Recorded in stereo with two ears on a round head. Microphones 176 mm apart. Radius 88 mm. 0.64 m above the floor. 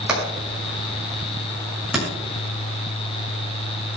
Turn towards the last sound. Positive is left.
turn(degrees=-5)  # may be behind; listen again after turning